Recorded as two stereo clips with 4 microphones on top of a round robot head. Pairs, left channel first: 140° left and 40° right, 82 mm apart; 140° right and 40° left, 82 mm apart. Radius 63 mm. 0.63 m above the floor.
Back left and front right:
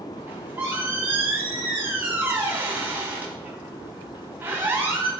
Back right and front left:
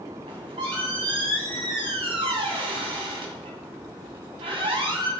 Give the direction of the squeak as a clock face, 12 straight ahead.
11 o'clock.